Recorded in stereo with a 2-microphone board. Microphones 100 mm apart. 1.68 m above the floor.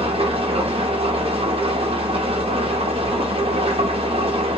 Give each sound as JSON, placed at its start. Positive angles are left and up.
{"t": 0.0, "sound": "an engine running", "side_deg": -70, "distance_m": 0.8}